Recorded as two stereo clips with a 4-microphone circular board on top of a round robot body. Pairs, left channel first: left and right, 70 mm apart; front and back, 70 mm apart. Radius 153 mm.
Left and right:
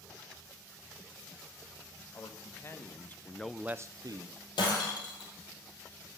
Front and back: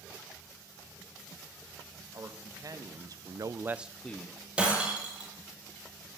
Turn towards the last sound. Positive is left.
turn(degrees=105)